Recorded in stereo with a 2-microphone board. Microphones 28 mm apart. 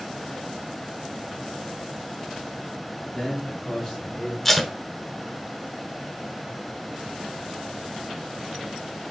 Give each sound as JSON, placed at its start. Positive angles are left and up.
{"t": 3.1, "sound": "a man speaking", "side_deg": 10, "distance_m": 2.5}
{"t": 4.5, "sound": "tape being pulled", "side_deg": 0, "distance_m": 0.6}